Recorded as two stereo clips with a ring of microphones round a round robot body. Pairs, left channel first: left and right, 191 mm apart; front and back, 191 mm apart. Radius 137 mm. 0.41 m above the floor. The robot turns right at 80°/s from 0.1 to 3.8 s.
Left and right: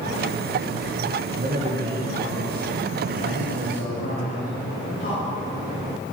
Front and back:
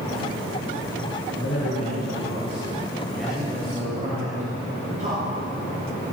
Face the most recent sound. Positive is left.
turn(degrees=135)